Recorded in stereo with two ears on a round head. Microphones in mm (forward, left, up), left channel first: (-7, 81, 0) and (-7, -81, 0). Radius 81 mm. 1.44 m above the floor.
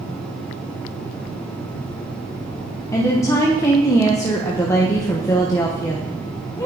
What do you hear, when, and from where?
2.9 s a woman speaking: 15° left (ahead or behind), 1.1 m